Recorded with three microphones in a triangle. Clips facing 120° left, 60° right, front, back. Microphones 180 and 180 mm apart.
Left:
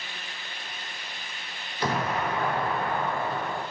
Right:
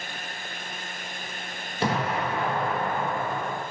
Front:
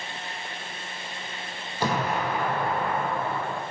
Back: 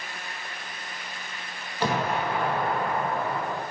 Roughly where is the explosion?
Right.